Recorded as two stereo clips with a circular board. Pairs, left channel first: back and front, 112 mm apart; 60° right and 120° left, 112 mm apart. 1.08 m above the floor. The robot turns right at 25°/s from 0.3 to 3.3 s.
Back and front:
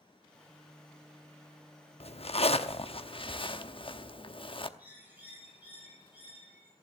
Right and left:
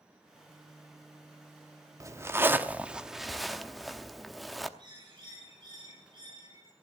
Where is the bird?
75° left, 5.5 m.